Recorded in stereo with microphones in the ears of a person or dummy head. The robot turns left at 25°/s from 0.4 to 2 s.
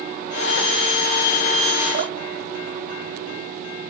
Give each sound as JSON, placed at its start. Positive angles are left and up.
{"t": 1.9, "sound": "dripping", "side_deg": -45, "distance_m": 0.7}